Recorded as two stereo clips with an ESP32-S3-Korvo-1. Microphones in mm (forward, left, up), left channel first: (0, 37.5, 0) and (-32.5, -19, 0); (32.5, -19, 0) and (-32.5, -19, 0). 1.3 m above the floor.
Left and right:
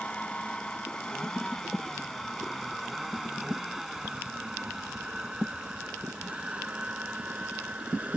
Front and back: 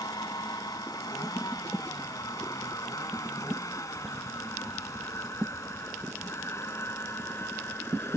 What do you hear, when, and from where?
0.0 s a vehicle: 10° right; by 8.2 s 50° right